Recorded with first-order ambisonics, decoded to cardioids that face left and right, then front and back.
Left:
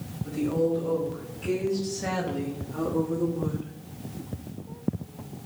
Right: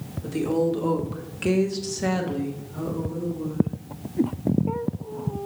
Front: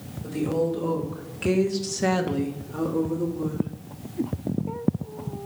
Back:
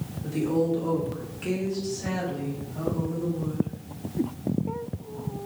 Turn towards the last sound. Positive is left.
turn(degrees=45)